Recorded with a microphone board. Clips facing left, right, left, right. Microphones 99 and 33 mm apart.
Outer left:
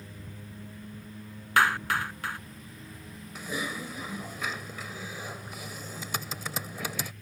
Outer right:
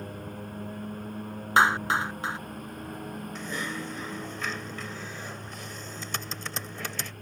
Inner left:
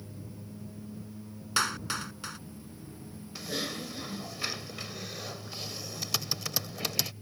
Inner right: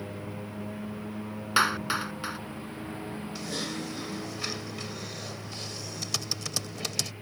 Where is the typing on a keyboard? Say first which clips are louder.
Outer left 2 dB, inner left 1 dB; 5° left (ahead or behind).